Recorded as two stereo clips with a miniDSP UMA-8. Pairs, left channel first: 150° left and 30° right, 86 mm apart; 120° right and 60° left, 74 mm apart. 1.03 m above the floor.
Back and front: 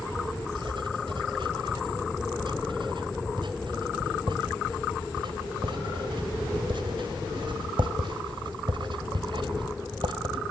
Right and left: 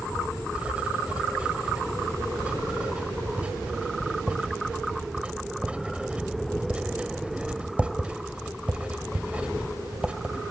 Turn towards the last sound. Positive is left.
turn(degrees=-15)